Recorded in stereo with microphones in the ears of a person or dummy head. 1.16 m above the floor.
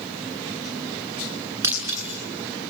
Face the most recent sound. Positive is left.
turn(degrees=-15)  # may be behind; listen again after turning